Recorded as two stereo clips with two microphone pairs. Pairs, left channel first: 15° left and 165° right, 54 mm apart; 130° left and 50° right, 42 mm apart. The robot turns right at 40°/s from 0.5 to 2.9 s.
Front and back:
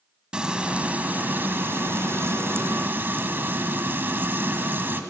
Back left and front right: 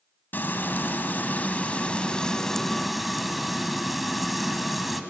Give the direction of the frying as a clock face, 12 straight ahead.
8 o'clock.